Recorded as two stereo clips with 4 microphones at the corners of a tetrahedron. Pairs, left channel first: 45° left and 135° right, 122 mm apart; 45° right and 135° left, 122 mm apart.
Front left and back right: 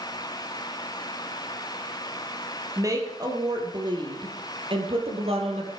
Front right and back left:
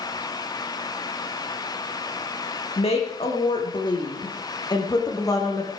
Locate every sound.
2.8 s a woman speaking: 75° right, 4.5 m; by 5.7 s 110° right, 4.5 m